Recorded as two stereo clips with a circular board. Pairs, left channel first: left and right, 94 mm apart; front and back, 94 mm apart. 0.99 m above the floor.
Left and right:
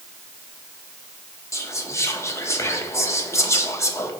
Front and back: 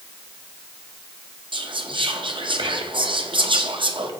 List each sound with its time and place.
1.5 s whispering: 150° left, 0.7 m